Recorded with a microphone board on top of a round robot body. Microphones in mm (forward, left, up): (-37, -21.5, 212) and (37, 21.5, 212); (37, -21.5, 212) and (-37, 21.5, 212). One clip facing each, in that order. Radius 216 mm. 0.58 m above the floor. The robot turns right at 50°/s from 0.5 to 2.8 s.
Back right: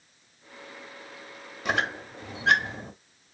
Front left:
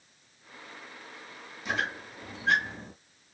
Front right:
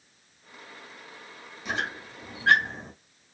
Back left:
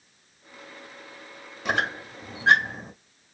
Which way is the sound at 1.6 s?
Straight behind.